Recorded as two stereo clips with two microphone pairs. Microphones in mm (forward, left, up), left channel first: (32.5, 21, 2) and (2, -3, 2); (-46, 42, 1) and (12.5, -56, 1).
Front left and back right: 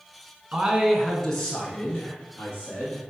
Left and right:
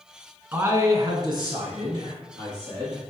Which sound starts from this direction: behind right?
A man speaking, at 0.5 s.